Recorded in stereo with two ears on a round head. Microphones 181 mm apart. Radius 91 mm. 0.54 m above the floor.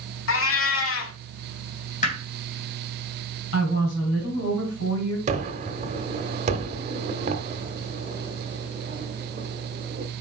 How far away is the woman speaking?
About 3.5 m.